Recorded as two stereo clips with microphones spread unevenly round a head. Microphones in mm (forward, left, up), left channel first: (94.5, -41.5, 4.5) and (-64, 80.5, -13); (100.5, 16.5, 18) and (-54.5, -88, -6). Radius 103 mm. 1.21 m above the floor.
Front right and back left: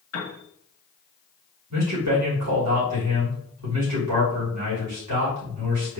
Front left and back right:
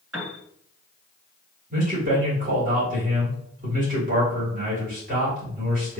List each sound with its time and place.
0.1 s a piano: 65° right, 2.0 m
1.7 s a man speaking: 160° left, 2.5 m